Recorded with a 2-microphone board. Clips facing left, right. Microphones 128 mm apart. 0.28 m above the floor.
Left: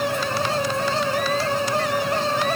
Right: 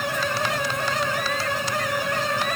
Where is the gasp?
I don't hear a gasp.